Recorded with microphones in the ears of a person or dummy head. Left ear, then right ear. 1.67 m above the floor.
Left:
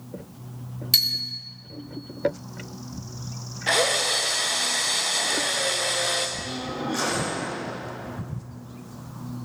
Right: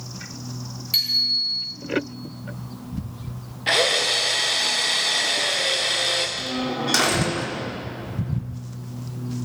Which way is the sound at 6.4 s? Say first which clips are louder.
Right 5 dB; 75° right (ahead or behind).